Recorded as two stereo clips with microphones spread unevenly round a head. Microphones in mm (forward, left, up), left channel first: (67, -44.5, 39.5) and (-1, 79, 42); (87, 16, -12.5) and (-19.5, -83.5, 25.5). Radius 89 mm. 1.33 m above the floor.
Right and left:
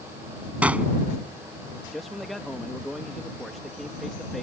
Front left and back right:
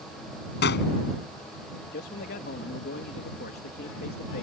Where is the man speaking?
25° left.